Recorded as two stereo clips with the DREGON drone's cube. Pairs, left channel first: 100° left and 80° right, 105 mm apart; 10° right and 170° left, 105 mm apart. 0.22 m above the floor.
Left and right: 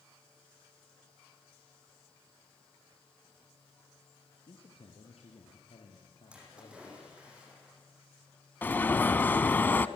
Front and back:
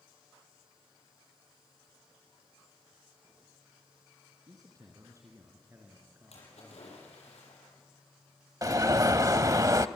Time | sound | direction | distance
4.5 | a man speaking | 120° left | 3 m
6.3 | a splash | straight ahead | 8 m
8.6 | an alarm | 155° left | 0.7 m